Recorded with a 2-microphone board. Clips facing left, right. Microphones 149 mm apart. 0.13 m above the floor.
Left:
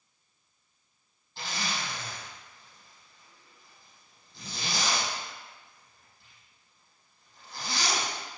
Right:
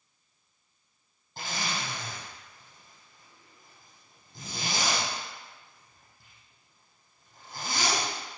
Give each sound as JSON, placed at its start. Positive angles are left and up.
{"t": 1.4, "sound": "a zipper", "side_deg": -50, "distance_m": 5.0}